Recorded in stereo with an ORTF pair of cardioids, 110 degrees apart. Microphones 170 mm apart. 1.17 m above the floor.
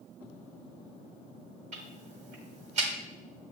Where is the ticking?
45° right, 1.2 m.